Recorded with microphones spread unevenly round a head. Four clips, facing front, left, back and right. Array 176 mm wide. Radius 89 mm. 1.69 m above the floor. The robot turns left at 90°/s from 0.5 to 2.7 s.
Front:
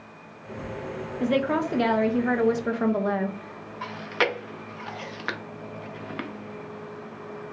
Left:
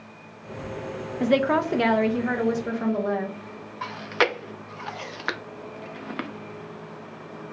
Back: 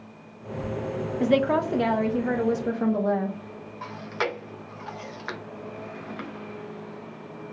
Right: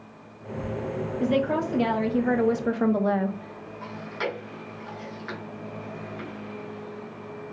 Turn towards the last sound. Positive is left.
turn(degrees=65)